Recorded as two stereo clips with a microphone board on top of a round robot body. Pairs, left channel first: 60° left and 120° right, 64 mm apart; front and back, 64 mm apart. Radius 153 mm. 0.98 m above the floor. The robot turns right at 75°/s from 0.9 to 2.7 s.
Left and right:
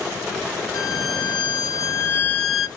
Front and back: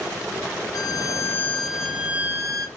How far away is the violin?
About 1.5 m.